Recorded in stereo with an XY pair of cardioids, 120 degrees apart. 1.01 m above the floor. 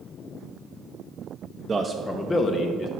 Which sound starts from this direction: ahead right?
A man speaking, at 1.7 s.